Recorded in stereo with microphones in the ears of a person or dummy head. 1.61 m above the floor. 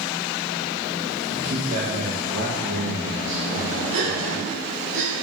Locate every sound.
1.3 s a man speaking: 30° right (ahead or behind), 2 m; by 4.5 s 80° right, 2.5 m
3.9 s a gasp: 60° right (ahead or behind), 2.5 m